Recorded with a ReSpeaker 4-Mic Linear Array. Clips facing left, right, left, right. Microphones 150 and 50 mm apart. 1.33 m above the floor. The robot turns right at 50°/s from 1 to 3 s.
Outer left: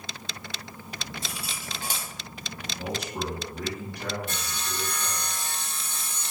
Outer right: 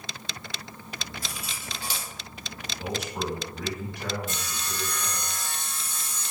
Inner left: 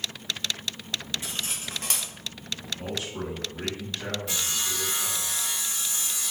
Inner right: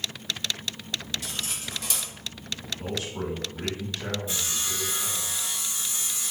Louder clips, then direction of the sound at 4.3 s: Even, inner left 1 dB; 60° left (ahead or behind).